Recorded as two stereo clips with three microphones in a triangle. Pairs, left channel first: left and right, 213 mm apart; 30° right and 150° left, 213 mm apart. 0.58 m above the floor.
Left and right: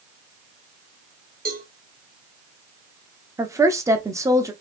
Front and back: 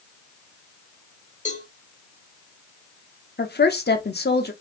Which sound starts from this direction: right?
A cowbell, at 1.4 s.